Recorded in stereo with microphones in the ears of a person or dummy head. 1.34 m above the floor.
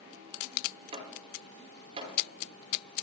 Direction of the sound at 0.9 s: 25° right (ahead or behind).